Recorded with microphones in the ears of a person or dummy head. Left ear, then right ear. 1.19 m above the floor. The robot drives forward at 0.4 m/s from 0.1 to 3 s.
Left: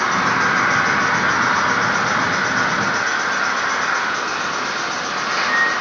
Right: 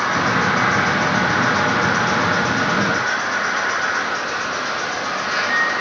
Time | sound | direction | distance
0.0 | an insect | 55° left (ahead or behind) | 1.0 m